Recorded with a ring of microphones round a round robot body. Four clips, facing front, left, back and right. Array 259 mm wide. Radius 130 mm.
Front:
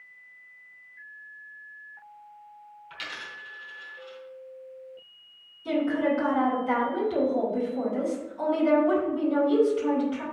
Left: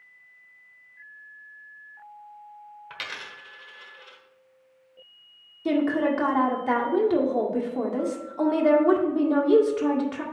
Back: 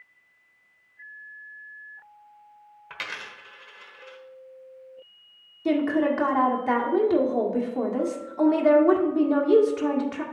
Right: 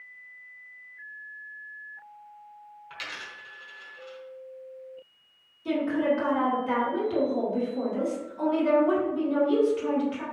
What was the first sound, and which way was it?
A dropped coin, 150° left.